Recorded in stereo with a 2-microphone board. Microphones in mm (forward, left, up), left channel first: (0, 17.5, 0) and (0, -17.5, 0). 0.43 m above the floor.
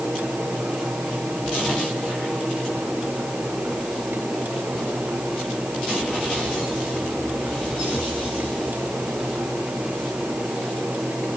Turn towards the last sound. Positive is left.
No sound to turn to.